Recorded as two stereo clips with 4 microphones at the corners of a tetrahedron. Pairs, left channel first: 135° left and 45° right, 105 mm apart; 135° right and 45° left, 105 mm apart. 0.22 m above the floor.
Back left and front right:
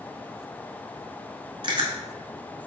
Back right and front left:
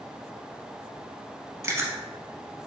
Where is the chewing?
15° right, 0.8 m.